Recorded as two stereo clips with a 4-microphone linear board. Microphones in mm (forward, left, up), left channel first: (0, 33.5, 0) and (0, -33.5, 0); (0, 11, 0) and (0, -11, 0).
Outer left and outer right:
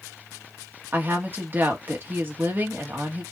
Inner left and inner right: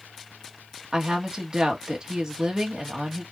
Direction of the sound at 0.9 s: 35° right (ahead or behind).